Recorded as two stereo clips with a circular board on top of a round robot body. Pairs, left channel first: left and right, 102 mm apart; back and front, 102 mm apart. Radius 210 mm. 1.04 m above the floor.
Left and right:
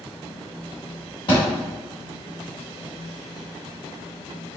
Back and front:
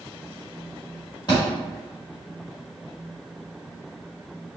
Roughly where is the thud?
Behind left.